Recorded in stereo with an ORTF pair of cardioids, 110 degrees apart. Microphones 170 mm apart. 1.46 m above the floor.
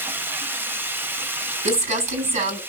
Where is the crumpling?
45° right, 5 m.